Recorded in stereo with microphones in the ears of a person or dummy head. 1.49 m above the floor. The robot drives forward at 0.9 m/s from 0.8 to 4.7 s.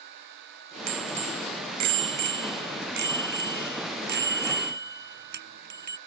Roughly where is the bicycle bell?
Right.